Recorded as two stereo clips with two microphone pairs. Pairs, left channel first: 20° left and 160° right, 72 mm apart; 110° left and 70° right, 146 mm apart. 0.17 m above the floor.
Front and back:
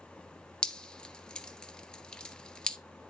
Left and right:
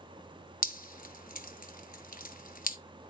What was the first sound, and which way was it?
Dripping, 95° left.